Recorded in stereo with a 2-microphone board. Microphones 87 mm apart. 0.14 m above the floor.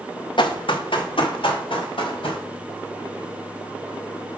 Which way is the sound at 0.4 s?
70° left (ahead or behind).